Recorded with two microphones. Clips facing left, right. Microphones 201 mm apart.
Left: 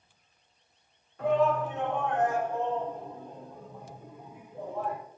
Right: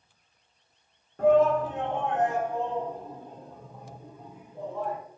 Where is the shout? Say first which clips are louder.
Right 5 dB; 50° right (ahead or behind), 3 m; by 5.0 s 10° left (ahead or behind), 6.5 m.